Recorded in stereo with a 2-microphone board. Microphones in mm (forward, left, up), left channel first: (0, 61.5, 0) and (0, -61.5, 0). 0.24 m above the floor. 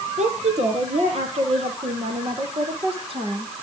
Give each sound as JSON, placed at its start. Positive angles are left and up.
{"t": 0.2, "sound": "a woman speaking", "side_deg": -65, "distance_m": 7.5}